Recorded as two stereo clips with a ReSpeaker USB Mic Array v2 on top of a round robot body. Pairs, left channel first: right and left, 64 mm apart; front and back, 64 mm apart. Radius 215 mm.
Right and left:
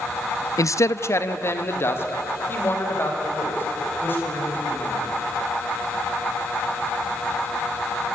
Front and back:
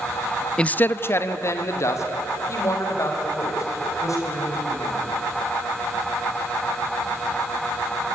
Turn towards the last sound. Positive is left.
turn(degrees=-35)